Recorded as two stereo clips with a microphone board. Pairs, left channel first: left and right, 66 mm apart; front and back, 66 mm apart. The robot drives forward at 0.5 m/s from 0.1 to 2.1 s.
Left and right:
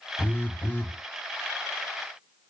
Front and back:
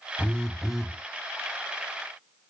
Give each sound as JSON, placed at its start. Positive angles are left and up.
{"t": 0.2, "sound": "a phone buzzing", "azimuth_deg": 55, "distance_m": 0.7}